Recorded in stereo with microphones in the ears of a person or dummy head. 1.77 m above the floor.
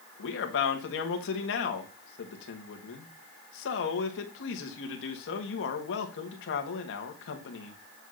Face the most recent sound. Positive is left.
turn(degrees=65)  # may be behind; listen again after turning